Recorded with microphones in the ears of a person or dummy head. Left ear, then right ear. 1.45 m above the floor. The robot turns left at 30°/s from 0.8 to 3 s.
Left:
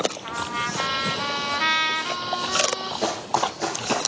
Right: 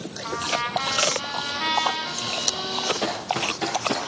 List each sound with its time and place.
0.2 s a trumpet: 175° left, 3 m; by 2.9 s 110° left, 3 m
3.0 s running footsteps: 5° right (ahead or behind), 1.5 m